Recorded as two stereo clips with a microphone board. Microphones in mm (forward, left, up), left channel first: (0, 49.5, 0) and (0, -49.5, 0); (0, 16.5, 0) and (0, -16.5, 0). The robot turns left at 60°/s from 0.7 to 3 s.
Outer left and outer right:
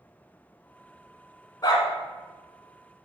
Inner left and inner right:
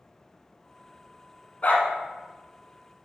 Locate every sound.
1.6 s a dog barking: 40° left (ahead or behind), 1.4 m; by 1.9 s 55° left (ahead or behind), 1.4 m